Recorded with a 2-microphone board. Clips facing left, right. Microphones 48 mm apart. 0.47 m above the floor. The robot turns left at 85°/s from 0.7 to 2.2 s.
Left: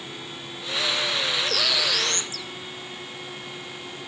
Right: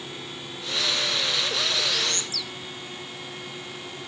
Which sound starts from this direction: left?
A bird, at 1.4 s.